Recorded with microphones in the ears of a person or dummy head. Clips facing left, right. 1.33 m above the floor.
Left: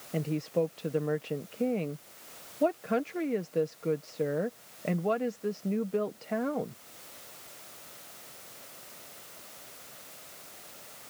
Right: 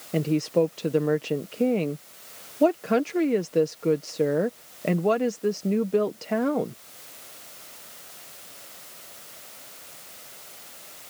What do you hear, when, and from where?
0.1 s a woman speaking: 60° right (ahead or behind)